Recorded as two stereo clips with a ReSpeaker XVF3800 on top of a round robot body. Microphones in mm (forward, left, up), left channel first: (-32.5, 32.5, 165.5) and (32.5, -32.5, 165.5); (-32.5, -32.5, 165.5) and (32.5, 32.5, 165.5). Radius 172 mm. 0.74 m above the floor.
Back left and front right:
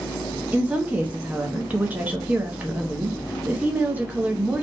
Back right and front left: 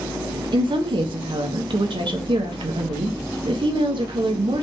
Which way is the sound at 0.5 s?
30° left.